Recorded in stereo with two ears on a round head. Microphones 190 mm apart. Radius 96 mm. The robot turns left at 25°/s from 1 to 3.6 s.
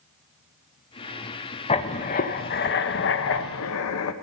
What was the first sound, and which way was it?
Writing, 150° left.